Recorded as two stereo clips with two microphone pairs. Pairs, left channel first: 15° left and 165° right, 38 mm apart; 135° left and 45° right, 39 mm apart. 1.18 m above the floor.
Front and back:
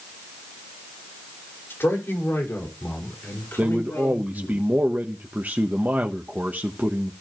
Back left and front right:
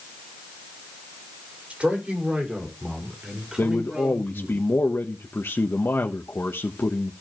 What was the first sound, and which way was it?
A man speaking, 15° left.